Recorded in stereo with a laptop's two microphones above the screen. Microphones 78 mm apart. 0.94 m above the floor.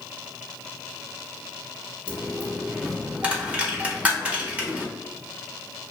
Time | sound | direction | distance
2.1 | a dropped coin | 15° right (ahead or behind) | 0.6 m